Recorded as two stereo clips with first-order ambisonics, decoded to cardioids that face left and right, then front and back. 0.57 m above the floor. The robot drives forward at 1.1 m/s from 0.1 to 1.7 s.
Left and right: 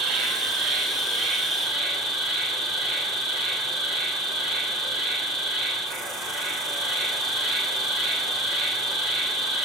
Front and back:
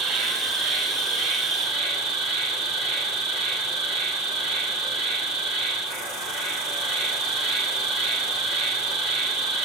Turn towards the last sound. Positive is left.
turn(degrees=-145)